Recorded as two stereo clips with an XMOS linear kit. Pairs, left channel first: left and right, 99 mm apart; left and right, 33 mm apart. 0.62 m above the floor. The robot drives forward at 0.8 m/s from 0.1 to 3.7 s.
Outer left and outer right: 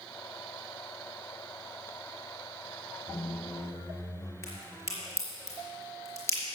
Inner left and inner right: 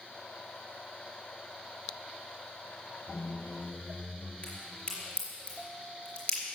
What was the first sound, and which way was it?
A squeak, 50° left (ahead or behind).